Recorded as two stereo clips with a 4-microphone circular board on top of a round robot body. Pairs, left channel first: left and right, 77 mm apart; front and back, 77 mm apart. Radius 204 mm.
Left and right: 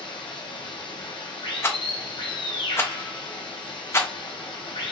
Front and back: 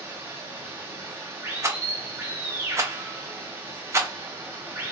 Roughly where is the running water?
Behind left.